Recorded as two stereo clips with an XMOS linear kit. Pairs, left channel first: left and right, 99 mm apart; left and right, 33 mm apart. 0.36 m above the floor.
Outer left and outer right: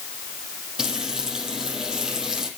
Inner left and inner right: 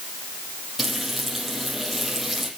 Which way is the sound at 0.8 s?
5° right (ahead or behind).